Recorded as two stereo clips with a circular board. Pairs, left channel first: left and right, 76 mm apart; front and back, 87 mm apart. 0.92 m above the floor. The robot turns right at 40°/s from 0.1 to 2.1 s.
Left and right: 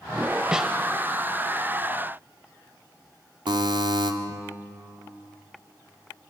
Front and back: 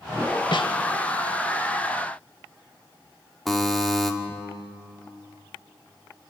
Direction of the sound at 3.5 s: 90° right.